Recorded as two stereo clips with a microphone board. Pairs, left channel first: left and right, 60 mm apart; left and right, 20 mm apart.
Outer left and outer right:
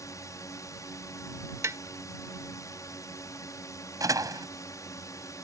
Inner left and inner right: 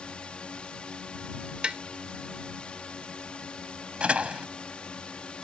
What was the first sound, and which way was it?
A drone, 65° left (ahead or behind).